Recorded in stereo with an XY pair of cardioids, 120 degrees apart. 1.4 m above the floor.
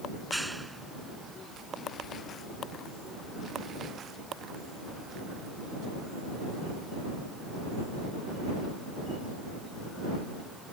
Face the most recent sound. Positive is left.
turn(degrees=-5)